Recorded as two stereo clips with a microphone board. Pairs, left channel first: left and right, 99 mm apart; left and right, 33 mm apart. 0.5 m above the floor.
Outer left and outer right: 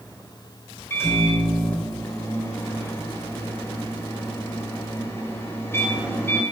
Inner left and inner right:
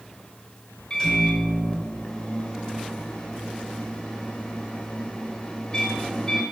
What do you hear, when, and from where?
0.9 s a microwave: 25° left (ahead or behind), 2 m